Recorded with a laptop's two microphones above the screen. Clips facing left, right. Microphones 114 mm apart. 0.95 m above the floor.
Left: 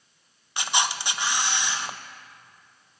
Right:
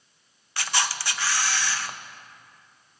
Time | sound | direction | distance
0.6 | a camera shutter | 20° left (ahead or behind) | 0.6 m